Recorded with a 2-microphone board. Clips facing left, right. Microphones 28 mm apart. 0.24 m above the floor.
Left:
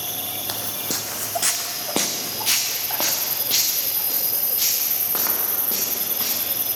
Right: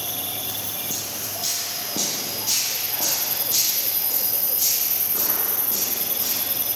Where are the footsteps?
60° left (ahead or behind), 0.5 m; by 6.4 s 70° left (ahead or behind), 4 m.